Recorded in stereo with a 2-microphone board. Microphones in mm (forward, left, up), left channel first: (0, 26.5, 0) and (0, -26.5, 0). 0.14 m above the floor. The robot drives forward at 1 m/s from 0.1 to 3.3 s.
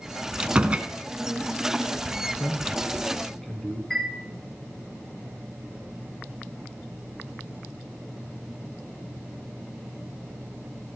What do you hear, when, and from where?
0.4 s a door slam: 20° right (ahead or behind), 0.9 m
2.3 s a man speaking: 10° left (ahead or behind), 1.3 m
3.9 s a chime: 10° left (ahead or behind), 4 m